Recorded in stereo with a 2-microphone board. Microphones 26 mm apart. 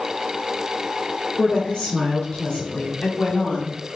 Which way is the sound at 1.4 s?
45° left (ahead or behind).